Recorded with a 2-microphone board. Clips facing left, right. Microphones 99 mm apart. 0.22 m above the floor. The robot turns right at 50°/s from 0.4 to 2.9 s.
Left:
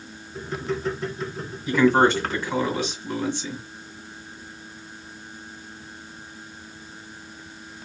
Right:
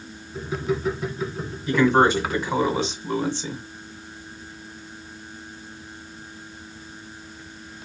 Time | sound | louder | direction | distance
1.7 | a man speaking | even | 170° left | 1.8 m